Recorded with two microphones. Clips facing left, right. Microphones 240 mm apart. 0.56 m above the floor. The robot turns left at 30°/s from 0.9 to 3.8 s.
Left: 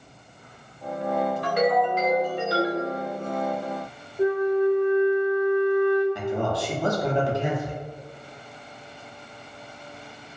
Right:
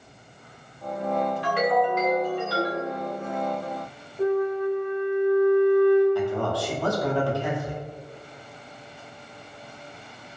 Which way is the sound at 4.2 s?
10° left (ahead or behind).